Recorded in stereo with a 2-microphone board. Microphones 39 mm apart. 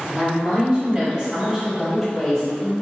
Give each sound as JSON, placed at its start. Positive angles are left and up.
{"t": 0.1, "sound": "a woman speaking", "side_deg": -30, "distance_m": 1.7}